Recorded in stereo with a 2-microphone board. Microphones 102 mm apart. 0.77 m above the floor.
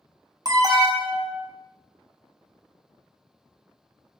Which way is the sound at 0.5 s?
40° right (ahead or behind).